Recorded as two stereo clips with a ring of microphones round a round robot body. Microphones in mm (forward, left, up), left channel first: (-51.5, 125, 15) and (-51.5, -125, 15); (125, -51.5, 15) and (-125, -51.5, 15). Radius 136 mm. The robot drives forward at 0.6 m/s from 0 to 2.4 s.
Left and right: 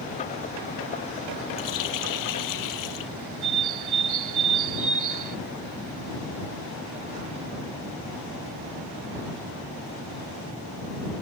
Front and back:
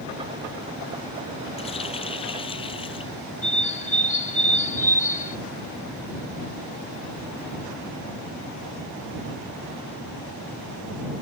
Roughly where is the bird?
Ahead right.